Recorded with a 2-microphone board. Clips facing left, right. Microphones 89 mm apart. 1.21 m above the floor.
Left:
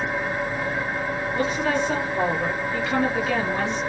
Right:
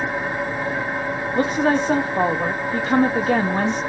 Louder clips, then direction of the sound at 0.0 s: Right 2 dB; 20° right (ahead or behind).